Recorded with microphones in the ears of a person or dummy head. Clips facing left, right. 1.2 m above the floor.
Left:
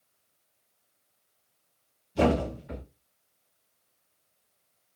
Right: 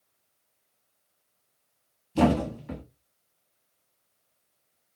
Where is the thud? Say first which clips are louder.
Right 2 dB; 50° right (ahead or behind), 1.0 m.